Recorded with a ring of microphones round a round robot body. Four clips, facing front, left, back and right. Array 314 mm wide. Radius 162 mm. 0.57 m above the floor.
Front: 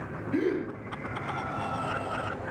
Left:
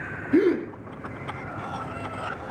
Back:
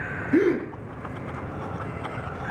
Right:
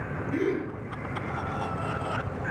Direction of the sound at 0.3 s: 150° left.